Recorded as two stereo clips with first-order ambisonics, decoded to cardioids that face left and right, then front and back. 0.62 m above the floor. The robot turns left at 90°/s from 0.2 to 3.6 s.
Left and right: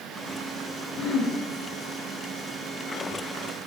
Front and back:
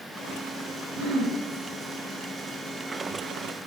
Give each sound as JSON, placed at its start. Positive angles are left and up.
{"t": 1.0, "sound": "throat clearing", "azimuth_deg": 150, "distance_m": 0.7}